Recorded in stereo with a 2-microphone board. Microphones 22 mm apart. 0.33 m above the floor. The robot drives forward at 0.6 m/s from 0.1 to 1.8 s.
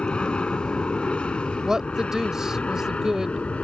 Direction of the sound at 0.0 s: 45° left (ahead or behind).